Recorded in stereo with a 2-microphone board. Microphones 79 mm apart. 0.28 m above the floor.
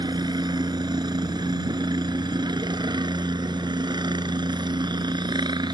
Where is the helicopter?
65° right (ahead or behind); by 5.7 s 70° right (ahead or behind).